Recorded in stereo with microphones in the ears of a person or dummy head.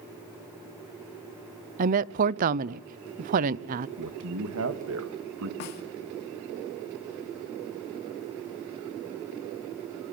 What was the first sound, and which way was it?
A woman speaking, 45° right (ahead or behind).